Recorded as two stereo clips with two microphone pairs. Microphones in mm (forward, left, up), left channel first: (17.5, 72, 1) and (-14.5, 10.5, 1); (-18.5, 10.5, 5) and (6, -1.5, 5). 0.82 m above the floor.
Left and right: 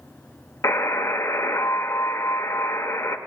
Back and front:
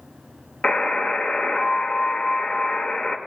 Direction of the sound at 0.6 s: 105° left.